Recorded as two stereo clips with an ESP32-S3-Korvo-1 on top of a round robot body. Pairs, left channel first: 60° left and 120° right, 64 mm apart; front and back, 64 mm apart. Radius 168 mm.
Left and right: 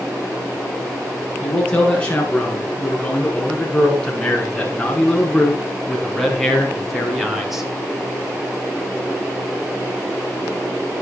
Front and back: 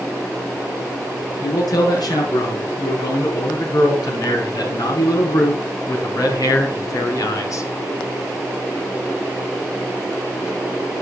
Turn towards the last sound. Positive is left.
turn(degrees=-35)